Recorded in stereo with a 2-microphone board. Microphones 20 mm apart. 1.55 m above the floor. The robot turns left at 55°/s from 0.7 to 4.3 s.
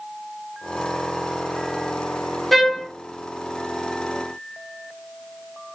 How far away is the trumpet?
About 1.0 m.